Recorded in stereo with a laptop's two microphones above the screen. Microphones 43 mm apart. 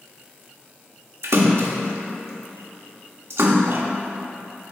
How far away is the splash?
About 0.9 m.